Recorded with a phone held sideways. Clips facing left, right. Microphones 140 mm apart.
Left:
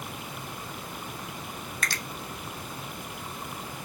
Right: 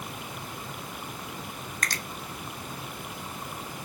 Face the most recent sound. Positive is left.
turn(degrees=-45)  # may be behind; listen again after turning